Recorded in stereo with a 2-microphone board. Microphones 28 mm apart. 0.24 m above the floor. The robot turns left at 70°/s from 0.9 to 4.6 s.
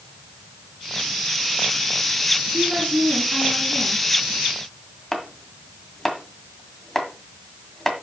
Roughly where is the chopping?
Centre.